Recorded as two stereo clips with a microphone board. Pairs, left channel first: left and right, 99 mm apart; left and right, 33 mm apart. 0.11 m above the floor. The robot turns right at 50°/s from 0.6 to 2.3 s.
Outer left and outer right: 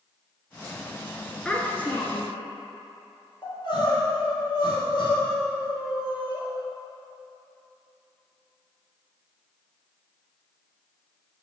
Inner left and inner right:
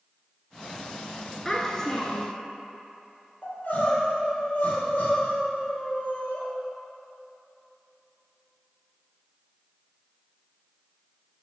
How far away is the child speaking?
About 0.8 m.